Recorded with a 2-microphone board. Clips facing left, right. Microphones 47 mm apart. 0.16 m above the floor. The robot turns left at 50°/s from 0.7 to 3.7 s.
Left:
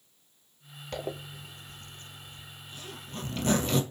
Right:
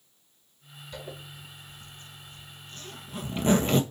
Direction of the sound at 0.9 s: 75° left (ahead or behind).